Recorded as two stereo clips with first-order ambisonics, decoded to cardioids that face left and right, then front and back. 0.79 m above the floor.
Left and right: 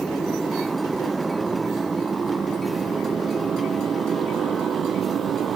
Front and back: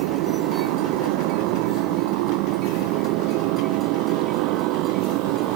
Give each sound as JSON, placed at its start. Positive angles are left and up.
{"t": 0.0, "sound": "a motorcycle", "azimuth_deg": -175}